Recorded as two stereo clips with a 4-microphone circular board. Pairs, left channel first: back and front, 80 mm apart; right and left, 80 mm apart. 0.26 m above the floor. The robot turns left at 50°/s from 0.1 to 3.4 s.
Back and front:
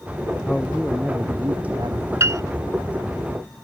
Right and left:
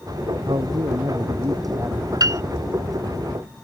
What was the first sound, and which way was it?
A man speaking, 105° left.